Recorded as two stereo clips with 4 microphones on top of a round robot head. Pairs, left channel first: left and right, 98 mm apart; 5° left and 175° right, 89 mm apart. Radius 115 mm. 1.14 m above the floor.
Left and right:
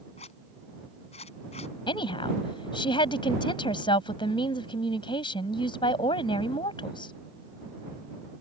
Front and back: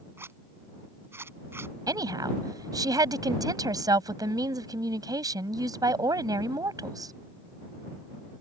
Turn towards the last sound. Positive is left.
turn(degrees=135)